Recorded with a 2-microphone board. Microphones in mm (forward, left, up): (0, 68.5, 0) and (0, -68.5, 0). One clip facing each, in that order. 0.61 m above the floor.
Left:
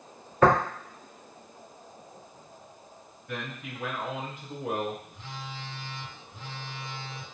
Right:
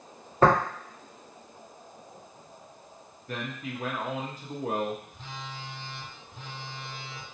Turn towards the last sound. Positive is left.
turn(degrees=-35)  # may be behind; listen again after turning